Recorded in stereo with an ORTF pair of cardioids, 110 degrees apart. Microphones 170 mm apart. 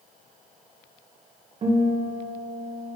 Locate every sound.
1.6 s a guitar: 40° right, 1.7 m